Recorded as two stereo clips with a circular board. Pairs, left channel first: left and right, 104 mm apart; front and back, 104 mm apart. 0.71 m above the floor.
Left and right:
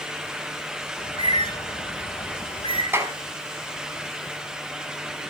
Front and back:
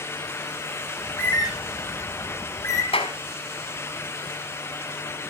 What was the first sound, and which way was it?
A bird, 55° left.